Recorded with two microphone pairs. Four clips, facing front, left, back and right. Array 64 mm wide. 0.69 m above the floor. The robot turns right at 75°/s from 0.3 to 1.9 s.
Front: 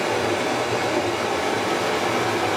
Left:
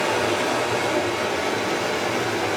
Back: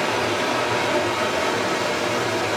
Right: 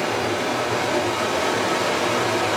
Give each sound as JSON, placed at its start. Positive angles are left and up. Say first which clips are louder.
{"t": 0.0, "sound": "running water", "louder": "left 1 dB, even", "azimuth_deg": 145, "distance_m": 1.2}